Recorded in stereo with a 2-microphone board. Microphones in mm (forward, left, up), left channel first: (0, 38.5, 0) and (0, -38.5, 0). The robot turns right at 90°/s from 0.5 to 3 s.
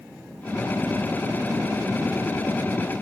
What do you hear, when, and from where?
Only background noise.